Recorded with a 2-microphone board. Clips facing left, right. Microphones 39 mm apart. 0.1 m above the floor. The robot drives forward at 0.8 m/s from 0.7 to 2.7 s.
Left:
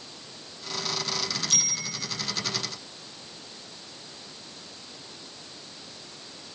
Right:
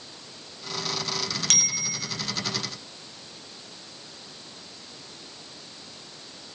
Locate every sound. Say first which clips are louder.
1.5 s a bicycle bell: right 3 dB; 75° right (ahead or behind), 4.5 m